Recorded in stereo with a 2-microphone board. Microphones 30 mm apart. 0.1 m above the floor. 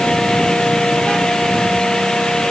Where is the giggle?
I don't hear a giggle.